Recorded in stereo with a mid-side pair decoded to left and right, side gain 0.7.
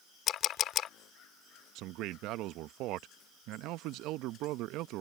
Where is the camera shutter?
45° left.